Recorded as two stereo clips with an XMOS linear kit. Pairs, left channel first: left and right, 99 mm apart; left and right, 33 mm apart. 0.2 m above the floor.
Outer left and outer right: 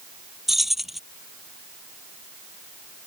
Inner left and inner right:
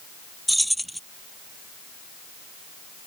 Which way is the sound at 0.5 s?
Centre (ahead or behind).